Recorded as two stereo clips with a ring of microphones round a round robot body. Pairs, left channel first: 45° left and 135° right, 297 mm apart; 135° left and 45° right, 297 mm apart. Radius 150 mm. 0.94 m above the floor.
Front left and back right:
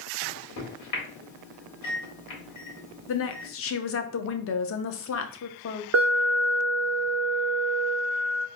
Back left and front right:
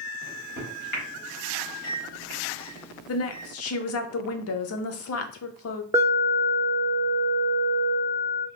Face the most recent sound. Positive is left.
turn(degrees=-120)